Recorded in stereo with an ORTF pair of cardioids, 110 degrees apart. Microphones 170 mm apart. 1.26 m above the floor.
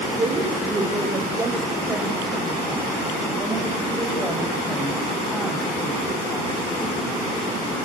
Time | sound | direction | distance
0.2 | a woman speaking | 20° right | 5 m